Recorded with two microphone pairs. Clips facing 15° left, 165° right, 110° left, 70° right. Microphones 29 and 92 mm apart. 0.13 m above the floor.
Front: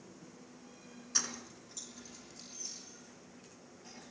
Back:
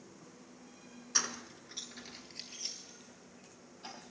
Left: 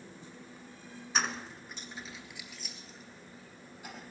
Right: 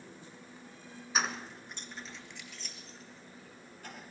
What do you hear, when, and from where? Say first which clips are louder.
1.1 s keys jangling: back 2 dB, even; 145° right, 1.0 m; by 4.0 s 170° right, 3.5 m